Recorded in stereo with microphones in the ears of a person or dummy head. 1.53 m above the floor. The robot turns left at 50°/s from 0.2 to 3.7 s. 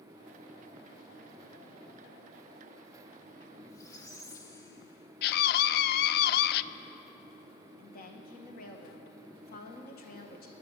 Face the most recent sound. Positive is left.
turn(degrees=50)  # may be behind; listen again after turning